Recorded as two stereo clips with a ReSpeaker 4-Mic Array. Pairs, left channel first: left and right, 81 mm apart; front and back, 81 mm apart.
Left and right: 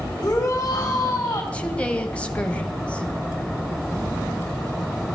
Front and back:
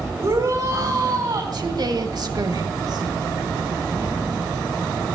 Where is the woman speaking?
160° left, 2 m.